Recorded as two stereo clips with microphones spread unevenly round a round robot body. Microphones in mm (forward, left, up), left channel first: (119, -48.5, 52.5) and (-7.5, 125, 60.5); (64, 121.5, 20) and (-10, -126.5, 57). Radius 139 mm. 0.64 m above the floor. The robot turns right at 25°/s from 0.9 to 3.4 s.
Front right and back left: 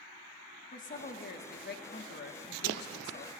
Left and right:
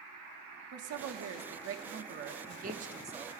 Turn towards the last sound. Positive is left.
turn(degrees=-30)